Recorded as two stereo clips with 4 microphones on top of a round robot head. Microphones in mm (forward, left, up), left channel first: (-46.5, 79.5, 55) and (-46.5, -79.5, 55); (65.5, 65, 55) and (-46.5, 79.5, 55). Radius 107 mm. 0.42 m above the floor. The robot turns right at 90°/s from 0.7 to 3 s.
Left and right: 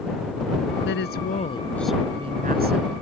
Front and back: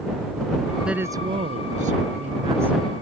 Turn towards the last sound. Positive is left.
turn(degrees=-80)